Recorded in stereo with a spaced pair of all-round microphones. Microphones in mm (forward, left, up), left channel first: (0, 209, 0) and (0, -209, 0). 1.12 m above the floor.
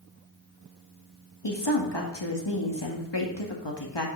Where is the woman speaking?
80° left, 1.8 m.